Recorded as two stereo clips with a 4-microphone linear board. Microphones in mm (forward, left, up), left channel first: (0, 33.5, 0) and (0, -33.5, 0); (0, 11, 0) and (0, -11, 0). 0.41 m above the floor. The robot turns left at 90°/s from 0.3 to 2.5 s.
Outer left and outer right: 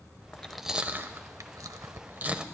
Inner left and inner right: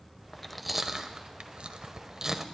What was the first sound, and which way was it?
Chewing, 20° left (ahead or behind).